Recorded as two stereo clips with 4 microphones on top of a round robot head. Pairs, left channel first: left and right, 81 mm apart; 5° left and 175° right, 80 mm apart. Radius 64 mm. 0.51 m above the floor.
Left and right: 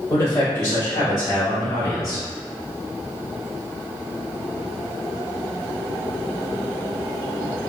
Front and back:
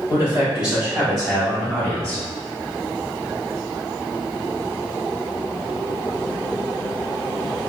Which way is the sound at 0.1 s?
140° left.